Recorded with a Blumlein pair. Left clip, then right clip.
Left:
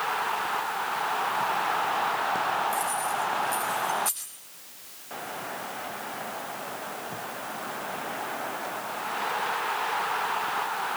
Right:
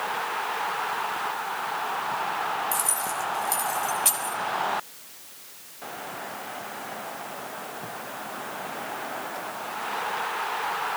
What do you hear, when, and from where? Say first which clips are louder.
2.7 s keys jangling: left 1 dB; 40° right, 6.5 m; by 4.4 s 25° right, 6.5 m